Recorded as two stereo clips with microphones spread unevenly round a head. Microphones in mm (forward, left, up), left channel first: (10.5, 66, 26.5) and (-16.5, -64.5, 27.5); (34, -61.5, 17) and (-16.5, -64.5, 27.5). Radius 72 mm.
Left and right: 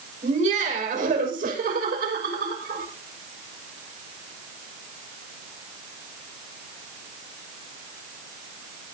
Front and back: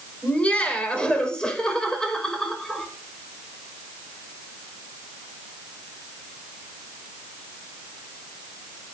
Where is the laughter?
65° right, 6 m; by 2.9 s 80° right, 6.5 m.